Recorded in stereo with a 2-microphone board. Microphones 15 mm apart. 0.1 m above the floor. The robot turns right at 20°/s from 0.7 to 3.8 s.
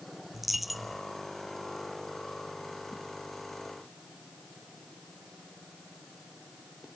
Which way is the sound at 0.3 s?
10° right (ahead or behind).